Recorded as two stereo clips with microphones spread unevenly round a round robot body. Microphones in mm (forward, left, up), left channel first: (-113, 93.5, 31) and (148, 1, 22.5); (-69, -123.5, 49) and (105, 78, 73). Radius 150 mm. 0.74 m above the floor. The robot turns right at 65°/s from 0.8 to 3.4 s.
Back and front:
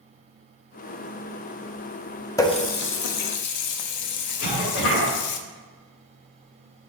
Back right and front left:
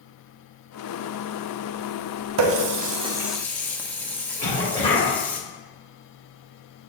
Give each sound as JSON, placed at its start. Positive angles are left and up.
{"t": 2.4, "sound": "a running tap", "azimuth_deg": 80, "distance_m": 0.6}
{"t": 4.4, "sound": "a cough", "azimuth_deg": 160, "distance_m": 3.0}